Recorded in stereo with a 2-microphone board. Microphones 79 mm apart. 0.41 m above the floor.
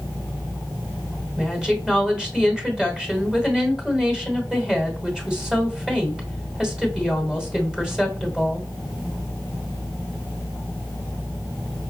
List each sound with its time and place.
1.4 s a woman speaking: 10° right (ahead or behind), 1.7 m